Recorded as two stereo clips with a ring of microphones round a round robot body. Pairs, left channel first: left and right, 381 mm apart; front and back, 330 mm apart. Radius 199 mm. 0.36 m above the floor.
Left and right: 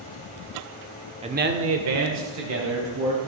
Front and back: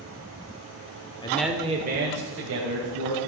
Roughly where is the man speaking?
Ahead right.